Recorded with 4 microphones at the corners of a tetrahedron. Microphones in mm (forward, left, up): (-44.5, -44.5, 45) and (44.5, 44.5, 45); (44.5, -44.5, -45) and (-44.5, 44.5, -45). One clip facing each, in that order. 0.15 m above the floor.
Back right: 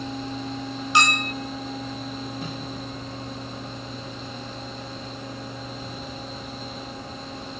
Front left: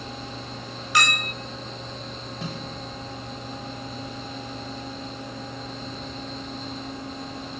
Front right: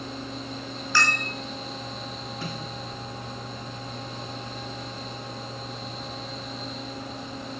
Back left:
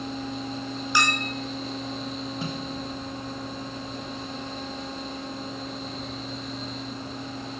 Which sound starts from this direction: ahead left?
A snare drum, at 2.4 s.